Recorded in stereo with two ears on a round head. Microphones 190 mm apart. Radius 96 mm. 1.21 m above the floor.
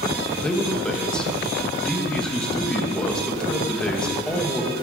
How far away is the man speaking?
About 1.3 m.